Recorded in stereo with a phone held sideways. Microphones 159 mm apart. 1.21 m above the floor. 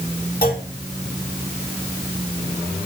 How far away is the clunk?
About 4 m.